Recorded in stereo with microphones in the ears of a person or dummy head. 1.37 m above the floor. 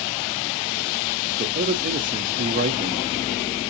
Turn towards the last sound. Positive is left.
turn(degrees=-45)  # may be behind; listen again after turning